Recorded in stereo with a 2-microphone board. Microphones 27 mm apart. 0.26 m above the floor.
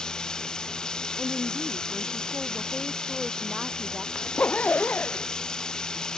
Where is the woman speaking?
15° right (ahead or behind).